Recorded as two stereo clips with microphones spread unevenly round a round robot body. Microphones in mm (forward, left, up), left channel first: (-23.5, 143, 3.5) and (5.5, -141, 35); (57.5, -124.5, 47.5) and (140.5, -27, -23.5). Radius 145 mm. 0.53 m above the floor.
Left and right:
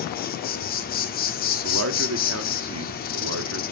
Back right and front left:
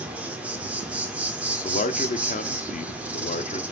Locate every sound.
0.0 s an insect: 75° left, 2.0 m
1.6 s a man speaking: 95° right, 1.2 m